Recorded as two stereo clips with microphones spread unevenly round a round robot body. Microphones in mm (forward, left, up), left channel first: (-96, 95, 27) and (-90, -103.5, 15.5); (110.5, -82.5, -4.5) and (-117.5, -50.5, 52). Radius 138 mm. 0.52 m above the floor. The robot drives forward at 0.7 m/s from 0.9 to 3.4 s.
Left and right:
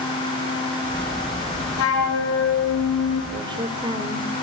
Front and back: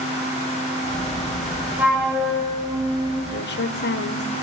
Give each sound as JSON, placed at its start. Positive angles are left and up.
{"t": 1.8, "sound": "a flute", "azimuth_deg": 85, "distance_m": 5.5}
{"t": 3.3, "sound": "a woman speaking", "azimuth_deg": -20, "distance_m": 2.0}